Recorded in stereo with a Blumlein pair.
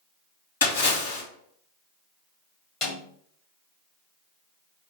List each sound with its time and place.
0.6 s a splash: 65° left, 1.6 m
2.8 s a snare drum: 25° left, 1.7 m